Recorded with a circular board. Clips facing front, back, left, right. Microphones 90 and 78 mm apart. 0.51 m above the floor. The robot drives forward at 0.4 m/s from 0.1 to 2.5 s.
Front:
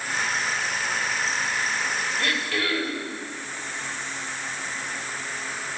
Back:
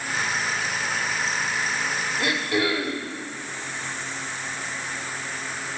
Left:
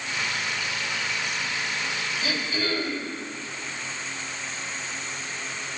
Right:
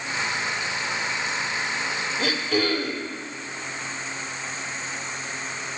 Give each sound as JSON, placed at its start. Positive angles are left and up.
{"t": 2.2, "sound": "throat clearing", "azimuth_deg": -105, "distance_m": 5.5}